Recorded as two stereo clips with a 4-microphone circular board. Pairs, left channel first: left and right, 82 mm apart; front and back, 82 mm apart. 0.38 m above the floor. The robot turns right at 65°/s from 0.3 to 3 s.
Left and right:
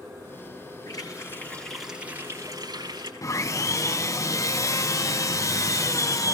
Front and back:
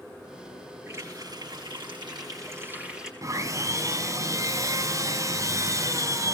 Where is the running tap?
120° left, 4.5 m; by 3.1 s 100° right, 4.5 m.